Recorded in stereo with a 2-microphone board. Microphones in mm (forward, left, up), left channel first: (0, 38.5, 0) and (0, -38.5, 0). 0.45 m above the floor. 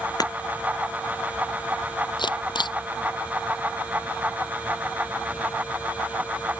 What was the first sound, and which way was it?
Breaking glass, 55° left (ahead or behind).